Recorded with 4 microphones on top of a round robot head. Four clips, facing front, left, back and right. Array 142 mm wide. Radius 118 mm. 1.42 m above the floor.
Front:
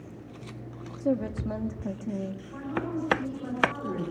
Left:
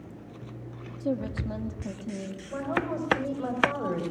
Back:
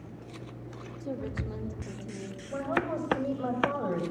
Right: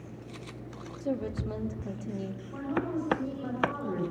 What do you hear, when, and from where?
1.0 s a woman speaking: 25° left, 3 m
2.5 s a woman speaking: 125° left, 7 m